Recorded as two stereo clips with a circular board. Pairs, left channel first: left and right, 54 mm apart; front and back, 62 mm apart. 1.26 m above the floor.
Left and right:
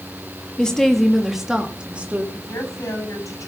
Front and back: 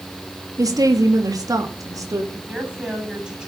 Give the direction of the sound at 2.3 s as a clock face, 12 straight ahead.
8 o'clock.